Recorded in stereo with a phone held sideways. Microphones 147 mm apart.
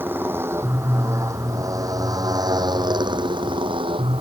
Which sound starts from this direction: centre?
A motorcycle, at 0.0 s.